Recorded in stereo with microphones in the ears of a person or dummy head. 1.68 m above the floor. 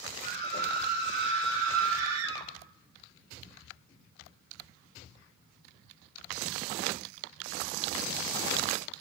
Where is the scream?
55° right (ahead or behind), 2 m; by 2.5 s 85° right, 2.5 m.